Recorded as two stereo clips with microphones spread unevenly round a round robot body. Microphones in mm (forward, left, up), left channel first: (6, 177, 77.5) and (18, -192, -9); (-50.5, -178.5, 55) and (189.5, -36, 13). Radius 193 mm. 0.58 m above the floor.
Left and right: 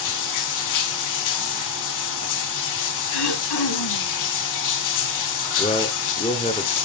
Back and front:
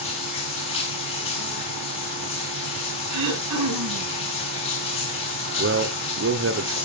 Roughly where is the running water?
Behind left.